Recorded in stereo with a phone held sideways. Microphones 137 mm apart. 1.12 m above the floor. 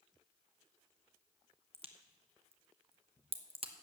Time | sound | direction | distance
1.7 | a crack | 45° right (ahead or behind) | 1.1 m